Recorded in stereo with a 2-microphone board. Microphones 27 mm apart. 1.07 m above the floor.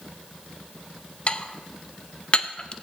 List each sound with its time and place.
1.3 s dishes clattering: 40° left (ahead or behind), 0.6 m